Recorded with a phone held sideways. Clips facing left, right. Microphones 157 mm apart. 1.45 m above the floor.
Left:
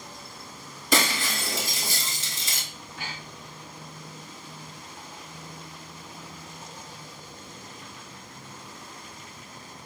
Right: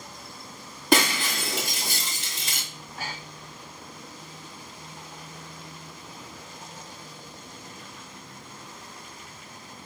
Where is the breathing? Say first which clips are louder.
Right 2 dB; 40° right (ahead or behind), 1.0 m.